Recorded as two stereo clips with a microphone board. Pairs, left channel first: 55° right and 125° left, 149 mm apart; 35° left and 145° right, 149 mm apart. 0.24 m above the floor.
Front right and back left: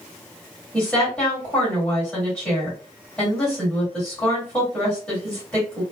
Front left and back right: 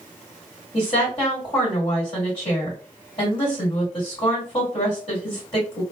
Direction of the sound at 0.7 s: 30° left.